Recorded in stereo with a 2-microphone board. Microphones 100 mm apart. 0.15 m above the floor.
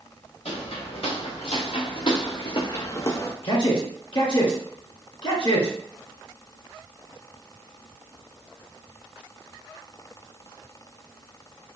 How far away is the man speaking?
About 2 m.